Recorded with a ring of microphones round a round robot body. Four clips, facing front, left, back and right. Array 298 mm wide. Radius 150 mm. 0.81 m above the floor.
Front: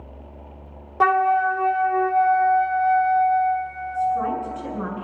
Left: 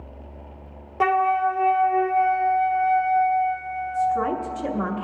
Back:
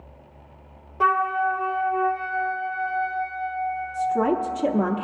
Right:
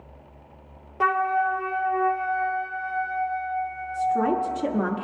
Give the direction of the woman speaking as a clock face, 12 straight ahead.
5 o'clock.